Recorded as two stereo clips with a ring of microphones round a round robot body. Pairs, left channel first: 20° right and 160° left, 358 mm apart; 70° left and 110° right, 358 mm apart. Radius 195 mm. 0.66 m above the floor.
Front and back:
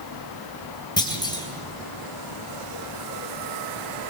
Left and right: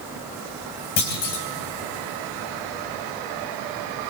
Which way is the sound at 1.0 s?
55° left.